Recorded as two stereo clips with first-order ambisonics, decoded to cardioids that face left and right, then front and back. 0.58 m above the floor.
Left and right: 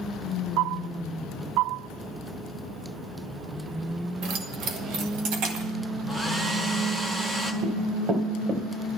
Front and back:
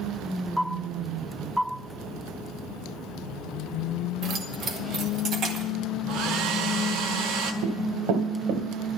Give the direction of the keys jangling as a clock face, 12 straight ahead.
4 o'clock.